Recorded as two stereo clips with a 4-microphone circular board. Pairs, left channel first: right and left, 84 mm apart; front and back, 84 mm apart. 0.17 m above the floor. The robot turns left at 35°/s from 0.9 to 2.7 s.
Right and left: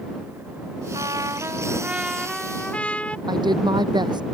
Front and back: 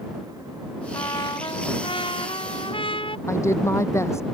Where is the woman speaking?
60° left.